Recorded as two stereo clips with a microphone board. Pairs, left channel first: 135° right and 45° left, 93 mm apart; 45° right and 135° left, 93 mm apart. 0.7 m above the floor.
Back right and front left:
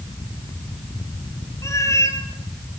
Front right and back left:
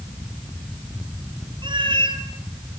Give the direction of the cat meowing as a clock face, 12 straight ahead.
6 o'clock.